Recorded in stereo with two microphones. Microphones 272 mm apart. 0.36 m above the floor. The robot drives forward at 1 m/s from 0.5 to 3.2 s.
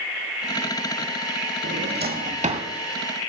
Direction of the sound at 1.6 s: 50° right (ahead or behind).